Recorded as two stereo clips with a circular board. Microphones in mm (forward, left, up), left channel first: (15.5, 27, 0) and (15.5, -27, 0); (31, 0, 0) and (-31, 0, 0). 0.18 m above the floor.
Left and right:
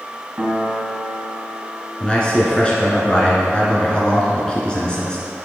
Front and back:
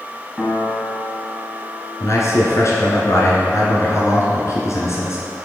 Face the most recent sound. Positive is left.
turn(degrees=20)